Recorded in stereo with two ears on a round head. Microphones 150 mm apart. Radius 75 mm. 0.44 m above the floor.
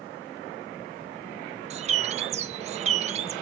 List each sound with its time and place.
1.7 s a bird: 40° right (ahead or behind), 0.7 m